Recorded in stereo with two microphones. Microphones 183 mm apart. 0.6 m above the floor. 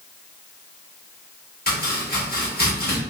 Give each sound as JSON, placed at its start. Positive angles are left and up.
{"t": 1.7, "sound": "chopping", "side_deg": 50, "distance_m": 1.1}